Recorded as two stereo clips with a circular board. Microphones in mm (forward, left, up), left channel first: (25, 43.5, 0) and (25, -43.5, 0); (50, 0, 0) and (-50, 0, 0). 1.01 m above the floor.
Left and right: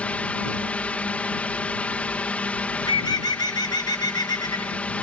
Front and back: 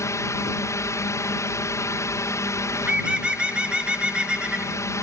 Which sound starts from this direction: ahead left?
A drone, at 0.0 s.